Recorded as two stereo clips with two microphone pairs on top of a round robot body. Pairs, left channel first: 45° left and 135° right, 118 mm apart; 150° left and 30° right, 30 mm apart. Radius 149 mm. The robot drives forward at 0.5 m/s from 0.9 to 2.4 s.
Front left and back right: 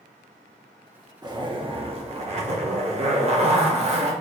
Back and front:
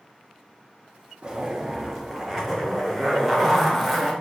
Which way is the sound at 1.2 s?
85° right.